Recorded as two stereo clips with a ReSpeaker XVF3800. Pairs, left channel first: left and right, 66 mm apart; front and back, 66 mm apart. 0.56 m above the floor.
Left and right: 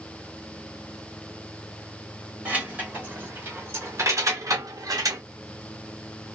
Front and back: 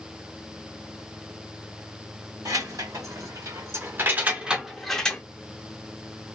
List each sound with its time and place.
2.5 s keys jangling: 155° right, 1.5 m; by 5.2 s 70° right, 0.8 m